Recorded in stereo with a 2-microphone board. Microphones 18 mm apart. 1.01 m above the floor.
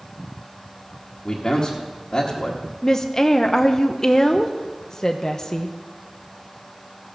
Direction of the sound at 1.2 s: 35° left (ahead or behind).